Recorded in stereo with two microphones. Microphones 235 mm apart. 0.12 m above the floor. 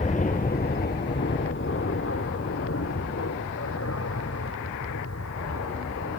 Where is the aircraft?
30° left (ahead or behind); by 6.2 s 80° left.